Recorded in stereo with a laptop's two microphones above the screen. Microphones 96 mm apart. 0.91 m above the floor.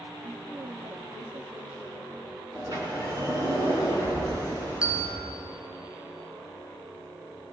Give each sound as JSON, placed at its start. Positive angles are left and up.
{"t": 0.2, "sound": "a woman speaking", "side_deg": -60, "distance_m": 1.6}
{"t": 2.5, "sound": "a sliding door", "side_deg": -45, "distance_m": 9.0}
{"t": 4.8, "sound": "a bell", "side_deg": -10, "distance_m": 0.7}